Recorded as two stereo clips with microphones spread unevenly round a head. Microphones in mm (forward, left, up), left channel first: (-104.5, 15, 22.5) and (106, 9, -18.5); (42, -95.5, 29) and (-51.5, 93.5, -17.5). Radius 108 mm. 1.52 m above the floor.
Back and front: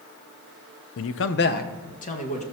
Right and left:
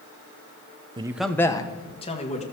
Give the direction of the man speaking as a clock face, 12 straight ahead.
6 o'clock.